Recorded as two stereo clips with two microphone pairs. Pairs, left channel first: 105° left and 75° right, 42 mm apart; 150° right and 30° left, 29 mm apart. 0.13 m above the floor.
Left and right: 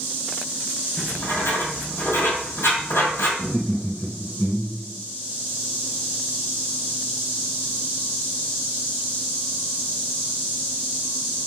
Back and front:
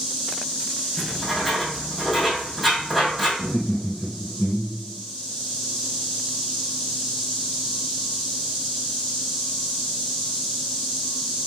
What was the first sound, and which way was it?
Writing, 125° left.